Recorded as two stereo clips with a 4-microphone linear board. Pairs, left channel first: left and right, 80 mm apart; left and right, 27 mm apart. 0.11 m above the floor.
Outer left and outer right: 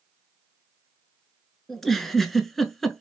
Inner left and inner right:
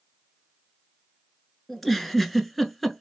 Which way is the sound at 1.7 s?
Centre (ahead or behind).